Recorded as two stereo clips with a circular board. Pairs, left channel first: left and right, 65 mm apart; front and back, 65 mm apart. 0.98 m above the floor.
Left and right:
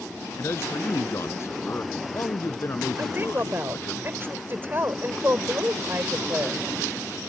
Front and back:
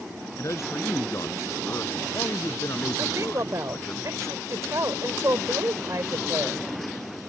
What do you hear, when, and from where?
0.4 s a man speaking: 40° left
3.0 s a woman speaking: 145° right